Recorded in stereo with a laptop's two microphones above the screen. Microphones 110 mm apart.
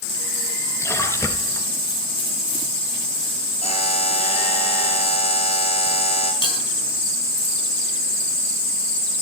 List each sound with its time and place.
0.8 s a splash: 25° left (ahead or behind), 3 m
3.6 s a buzzer: 70° left (ahead or behind), 4 m
6.4 s a bell: 55° left (ahead or behind), 8 m